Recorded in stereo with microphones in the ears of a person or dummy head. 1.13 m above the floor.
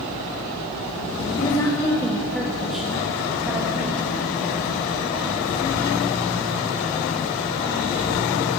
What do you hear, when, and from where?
1.4 s a woman speaking: 25° left (ahead or behind), 1.1 m; by 4.0 s 10° right (ahead or behind), 2.5 m